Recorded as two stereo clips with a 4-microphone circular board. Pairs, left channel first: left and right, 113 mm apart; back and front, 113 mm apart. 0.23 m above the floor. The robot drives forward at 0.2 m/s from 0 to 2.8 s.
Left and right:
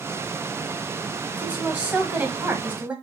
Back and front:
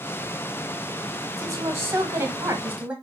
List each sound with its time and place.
1.4 s a woman speaking: 25° right, 1.1 m; by 2.9 s 45° right, 1.0 m